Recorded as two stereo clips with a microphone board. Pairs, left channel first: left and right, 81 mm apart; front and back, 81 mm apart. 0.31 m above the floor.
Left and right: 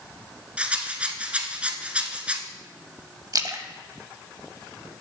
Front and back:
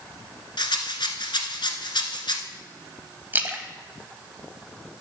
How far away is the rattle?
About 0.9 m.